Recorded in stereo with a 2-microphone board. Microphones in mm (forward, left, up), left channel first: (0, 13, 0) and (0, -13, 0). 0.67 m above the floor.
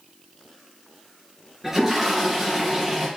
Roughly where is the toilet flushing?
Centre.